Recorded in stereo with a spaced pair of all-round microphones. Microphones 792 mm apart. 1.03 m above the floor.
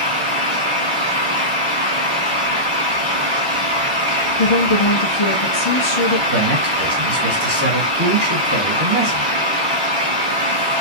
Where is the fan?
45° right (ahead or behind), 2 m.